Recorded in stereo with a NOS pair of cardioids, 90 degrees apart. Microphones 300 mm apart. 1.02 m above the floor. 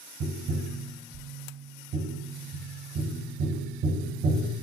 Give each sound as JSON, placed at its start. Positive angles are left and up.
{"t": 0.2, "sound": "tapping", "azimuth_deg": -50, "distance_m": 0.7}